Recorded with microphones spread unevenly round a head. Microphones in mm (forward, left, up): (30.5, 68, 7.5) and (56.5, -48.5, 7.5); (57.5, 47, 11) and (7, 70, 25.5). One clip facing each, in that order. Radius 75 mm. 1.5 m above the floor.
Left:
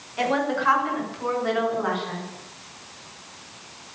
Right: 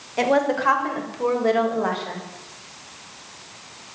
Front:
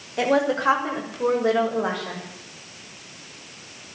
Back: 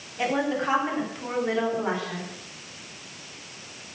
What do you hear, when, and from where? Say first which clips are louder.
0.2 s a woman speaking: right 4 dB, front 5 dB; 35° right, 6 m; by 2.2 s 40° right, 7.5 m